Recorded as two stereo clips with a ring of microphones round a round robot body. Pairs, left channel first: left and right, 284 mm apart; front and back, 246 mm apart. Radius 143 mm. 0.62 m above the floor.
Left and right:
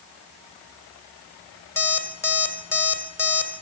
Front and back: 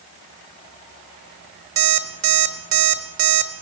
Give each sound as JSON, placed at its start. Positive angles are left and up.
{"t": 1.8, "sound": "an alarm clock", "azimuth_deg": 170, "distance_m": 1.3}